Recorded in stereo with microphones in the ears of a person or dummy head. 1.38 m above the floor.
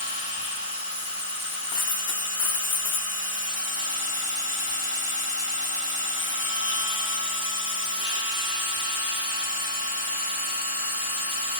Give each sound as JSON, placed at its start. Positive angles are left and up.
{"t": 0.0, "sound": "a machine running", "side_deg": -10, "distance_m": 1.3}
{"t": 1.7, "sound": "a dropped coin", "side_deg": 40, "distance_m": 0.8}